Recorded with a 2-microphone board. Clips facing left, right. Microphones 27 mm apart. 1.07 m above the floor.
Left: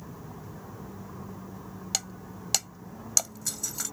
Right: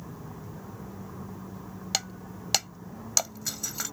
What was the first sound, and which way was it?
Breaking glass, 20° right (ahead or behind).